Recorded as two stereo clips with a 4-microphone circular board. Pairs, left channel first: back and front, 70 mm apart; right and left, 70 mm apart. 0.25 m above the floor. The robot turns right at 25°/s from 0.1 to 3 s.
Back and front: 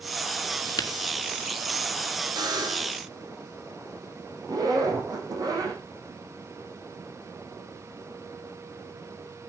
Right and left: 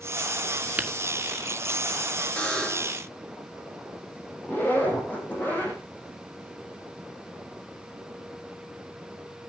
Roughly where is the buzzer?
Ahead.